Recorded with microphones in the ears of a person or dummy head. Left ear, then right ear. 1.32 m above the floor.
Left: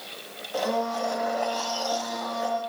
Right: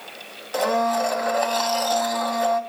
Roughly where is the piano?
I don't hear a piano.